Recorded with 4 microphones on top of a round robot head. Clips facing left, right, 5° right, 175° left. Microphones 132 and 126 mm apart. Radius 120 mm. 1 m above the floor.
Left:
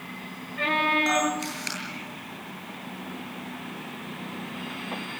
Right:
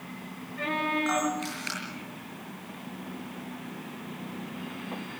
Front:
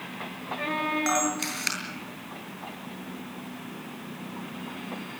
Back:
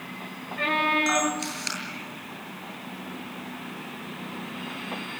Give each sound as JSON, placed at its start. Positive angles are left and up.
{"t": 1.1, "sound": "a camera shutter", "azimuth_deg": 30, "distance_m": 8.0}